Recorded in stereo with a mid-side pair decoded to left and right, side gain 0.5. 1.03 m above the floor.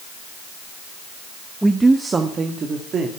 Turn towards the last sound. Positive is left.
turn(degrees=-50)